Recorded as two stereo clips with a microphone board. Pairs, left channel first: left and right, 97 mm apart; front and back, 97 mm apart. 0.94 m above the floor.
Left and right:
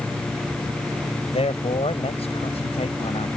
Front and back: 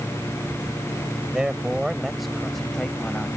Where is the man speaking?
100° left; by 3.3 s 85° left.